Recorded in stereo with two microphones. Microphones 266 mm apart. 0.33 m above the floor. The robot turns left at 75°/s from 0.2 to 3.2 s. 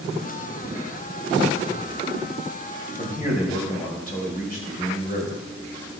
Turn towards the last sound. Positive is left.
turn(degrees=35)  # may be behind; listen again after turning